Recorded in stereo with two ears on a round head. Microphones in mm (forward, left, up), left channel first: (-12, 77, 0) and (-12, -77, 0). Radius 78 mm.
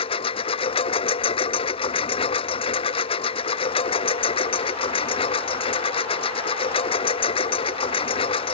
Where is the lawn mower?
35° left (ahead or behind).